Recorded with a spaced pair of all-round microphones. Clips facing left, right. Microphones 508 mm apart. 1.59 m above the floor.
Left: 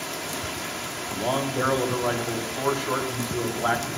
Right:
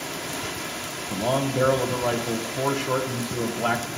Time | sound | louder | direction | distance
1.1 | a man speaking | right 2 dB | 50° right (ahead or behind) | 1.0 m